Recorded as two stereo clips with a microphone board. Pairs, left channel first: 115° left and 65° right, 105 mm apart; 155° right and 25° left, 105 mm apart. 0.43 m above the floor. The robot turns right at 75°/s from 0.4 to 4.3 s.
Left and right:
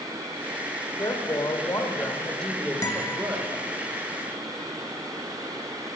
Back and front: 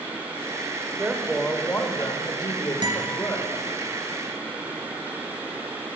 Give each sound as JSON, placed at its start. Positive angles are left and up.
{"t": 1.0, "sound": "a woman speaking", "azimuth_deg": 85, "distance_m": 1.3}
{"t": 2.8, "sound": "a guitar", "azimuth_deg": 60, "distance_m": 1.7}